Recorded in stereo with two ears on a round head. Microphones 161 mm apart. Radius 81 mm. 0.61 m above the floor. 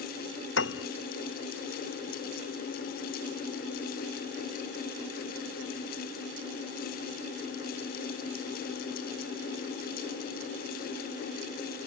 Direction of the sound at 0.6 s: 75° left (ahead or behind).